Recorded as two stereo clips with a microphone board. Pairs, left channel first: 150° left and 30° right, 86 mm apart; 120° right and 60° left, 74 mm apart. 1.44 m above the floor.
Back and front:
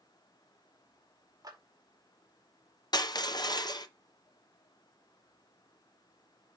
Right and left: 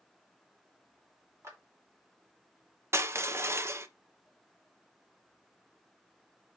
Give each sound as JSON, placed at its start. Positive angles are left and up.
{"t": 1.4, "sound": "a clap", "azimuth_deg": 10, "distance_m": 2.5}
{"t": 2.9, "sound": "crushing", "azimuth_deg": 115, "distance_m": 0.7}